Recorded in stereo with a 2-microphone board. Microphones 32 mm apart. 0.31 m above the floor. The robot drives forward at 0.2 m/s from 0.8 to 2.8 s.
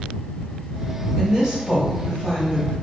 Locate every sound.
1.2 s a woman speaking: 15° right (ahead or behind), 1.0 m